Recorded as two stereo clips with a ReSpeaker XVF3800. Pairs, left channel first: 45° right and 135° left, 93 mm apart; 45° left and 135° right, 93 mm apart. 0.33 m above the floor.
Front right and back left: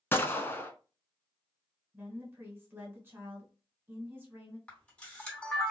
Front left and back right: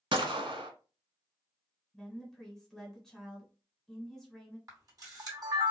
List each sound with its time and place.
0.1 s a gunshot: 110° right, 0.5 m
1.9 s a woman speaking: 120° left, 1.2 m
4.7 s a camera shutter: 115° right, 1.9 m